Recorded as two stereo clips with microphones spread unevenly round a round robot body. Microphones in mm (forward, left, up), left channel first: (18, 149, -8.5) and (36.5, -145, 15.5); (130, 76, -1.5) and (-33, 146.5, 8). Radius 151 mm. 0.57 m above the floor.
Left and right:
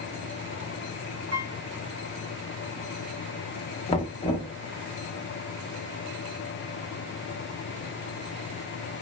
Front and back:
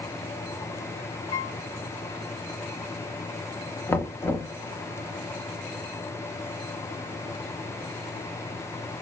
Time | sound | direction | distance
1.3 | a piano | 40° right | 1.2 m
3.9 | knocking | 40° left | 0.5 m